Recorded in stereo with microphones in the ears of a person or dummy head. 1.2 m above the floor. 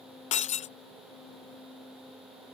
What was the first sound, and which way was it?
Breaking glass, 35° left (ahead or behind).